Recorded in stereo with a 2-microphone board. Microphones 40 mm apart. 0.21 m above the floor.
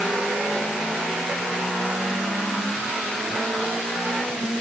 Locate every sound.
Only background noise.